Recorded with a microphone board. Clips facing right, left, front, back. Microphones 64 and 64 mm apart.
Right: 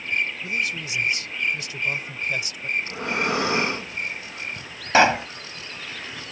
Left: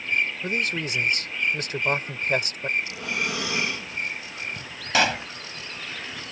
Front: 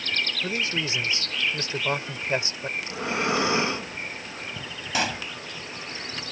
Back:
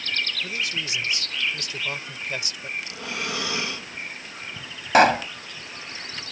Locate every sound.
0.4 s a man speaking: 55° left
2.8 s breathing: 50° right
4.9 s a pop: 150° right